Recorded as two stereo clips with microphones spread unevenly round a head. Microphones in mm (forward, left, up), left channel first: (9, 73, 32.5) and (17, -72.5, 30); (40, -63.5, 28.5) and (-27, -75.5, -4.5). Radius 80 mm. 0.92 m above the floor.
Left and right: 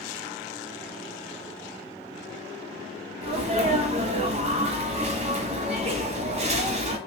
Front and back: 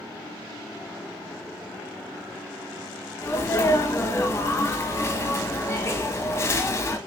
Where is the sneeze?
55° right, 1.1 m.